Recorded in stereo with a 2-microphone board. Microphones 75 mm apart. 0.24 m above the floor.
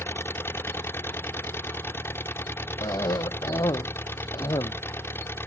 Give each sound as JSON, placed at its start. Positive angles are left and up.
{"t": 0.0, "sound": "an engine running", "side_deg": 30}
{"t": 2.8, "sound": "a cough", "side_deg": 65}